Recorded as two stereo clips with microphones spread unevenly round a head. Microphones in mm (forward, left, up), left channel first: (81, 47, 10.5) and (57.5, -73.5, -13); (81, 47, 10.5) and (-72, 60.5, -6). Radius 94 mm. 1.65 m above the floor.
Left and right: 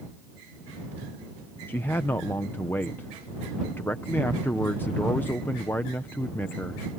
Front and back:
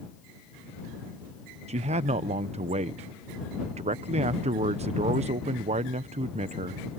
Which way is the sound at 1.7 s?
140° left.